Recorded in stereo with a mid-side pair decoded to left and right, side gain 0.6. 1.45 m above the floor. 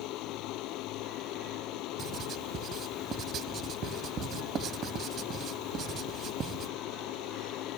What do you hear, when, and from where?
0.0 s a machine running: 65° left
2.0 s writing: 50° right